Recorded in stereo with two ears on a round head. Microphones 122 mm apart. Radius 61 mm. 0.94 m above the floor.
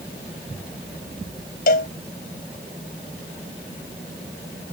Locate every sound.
1.7 s a cowbell: 70° left (ahead or behind)